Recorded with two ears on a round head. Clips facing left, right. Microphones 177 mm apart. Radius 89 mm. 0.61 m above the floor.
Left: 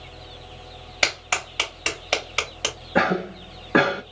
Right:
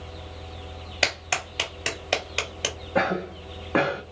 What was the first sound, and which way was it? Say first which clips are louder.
A clap: even; 5° right (ahead or behind).